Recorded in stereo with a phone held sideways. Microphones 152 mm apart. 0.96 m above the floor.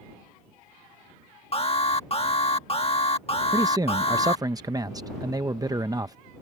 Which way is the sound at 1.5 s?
40° left (ahead or behind).